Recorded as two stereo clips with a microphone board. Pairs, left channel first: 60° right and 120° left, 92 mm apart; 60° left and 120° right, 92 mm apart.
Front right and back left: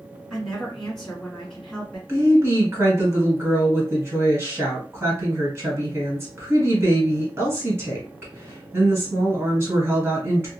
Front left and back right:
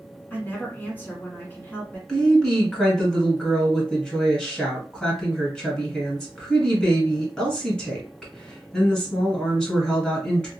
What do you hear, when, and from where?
0.3 s a woman speaking: 20° left, 1.4 m
2.1 s a woman speaking: 130° left, 1.4 m